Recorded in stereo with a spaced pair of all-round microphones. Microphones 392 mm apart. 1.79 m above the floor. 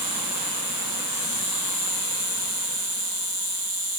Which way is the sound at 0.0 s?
60° right (ahead or behind).